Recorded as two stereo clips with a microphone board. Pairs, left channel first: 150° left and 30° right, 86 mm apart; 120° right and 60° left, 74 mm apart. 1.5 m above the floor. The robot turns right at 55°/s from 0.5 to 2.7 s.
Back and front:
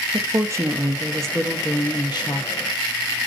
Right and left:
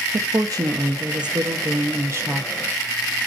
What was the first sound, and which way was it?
A woman speaking, 25° left.